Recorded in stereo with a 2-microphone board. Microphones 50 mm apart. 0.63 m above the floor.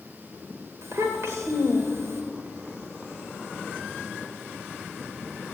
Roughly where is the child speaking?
Right.